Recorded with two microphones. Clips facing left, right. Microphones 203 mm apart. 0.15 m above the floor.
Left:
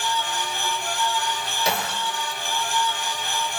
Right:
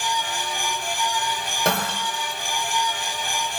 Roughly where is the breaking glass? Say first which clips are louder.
Right 3 dB; right.